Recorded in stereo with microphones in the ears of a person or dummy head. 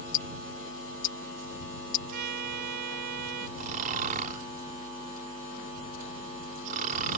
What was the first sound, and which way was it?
Ticking, 60° left (ahead or behind).